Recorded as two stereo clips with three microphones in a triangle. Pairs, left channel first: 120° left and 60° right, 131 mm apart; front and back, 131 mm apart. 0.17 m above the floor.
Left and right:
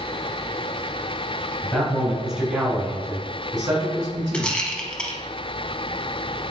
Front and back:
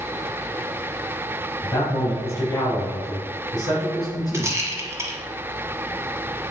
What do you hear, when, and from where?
1.6 s a man speaking: 55° left, 1.7 m; by 4.6 s 45° right, 2 m
4.3 s a rattle: 170° right, 0.9 m